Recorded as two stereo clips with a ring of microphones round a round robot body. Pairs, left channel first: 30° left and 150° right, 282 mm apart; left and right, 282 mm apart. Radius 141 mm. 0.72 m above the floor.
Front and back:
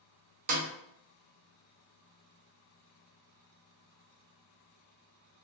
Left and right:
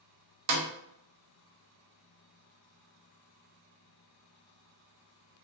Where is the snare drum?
90° right, 0.6 m.